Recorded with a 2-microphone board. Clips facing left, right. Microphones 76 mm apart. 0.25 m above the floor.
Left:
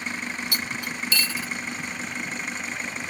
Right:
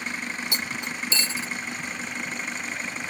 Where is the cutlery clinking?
25° right (ahead or behind), 0.6 m.